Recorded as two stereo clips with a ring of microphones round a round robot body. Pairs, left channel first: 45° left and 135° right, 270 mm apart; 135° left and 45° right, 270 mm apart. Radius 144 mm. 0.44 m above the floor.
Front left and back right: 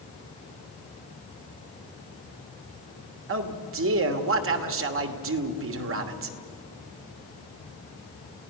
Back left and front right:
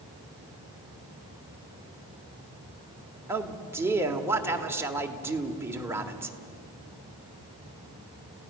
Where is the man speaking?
125° right, 1.4 m.